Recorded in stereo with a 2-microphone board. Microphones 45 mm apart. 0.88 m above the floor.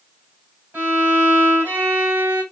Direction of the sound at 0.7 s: 50° right (ahead or behind).